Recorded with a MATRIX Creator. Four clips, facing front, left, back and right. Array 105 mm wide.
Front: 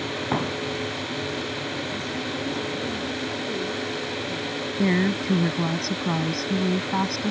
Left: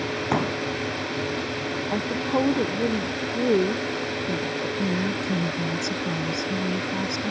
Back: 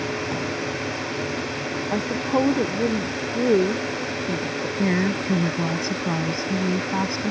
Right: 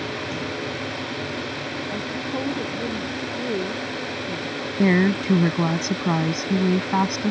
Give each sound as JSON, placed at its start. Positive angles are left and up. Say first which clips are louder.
{"t": 0.3, "sound": "a pop", "louder": "left 5 dB, front 1 dB", "azimuth_deg": 60}
{"t": 1.9, "sound": "a woman speaking", "louder": "left 6 dB, back 8 dB", "azimuth_deg": 155}
{"t": 4.8, "sound": "a woman speaking", "louder": "right 10 dB, even", "azimuth_deg": -85}